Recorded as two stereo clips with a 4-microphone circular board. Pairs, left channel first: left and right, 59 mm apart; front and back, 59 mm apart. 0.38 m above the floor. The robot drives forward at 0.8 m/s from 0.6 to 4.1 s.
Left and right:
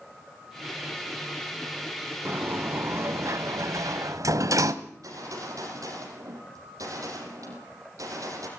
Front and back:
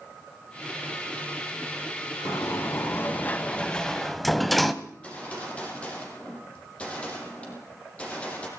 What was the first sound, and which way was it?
A sliding door, 40° right.